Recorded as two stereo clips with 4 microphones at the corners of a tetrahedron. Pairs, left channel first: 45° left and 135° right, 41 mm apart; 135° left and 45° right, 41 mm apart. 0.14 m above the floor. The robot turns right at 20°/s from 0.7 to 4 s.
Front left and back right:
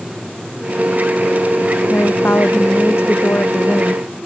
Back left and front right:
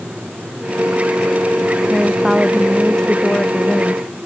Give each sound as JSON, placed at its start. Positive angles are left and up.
{"t": 1.9, "sound": "a woman speaking", "azimuth_deg": 35}